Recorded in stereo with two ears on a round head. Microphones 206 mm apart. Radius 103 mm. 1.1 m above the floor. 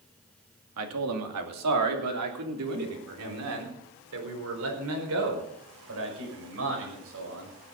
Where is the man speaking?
75° right (ahead or behind), 2.5 m; by 7.5 s 60° right (ahead or behind), 6.5 m.